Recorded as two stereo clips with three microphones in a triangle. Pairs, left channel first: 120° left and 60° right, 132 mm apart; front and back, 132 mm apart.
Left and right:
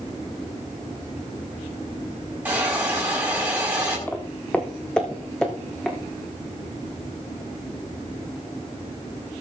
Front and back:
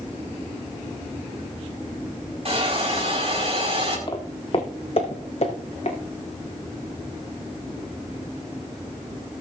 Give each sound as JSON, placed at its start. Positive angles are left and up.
{"t": 2.5, "sound": "a hiss", "azimuth_deg": -135, "distance_m": 5.0}
{"t": 4.1, "sound": "footsteps", "azimuth_deg": 45, "distance_m": 1.3}